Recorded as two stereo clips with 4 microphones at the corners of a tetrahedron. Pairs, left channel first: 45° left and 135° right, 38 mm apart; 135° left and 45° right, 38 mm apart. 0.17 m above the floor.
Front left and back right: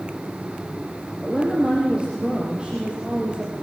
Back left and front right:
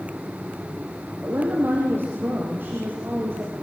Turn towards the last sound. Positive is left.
turn(degrees=-70)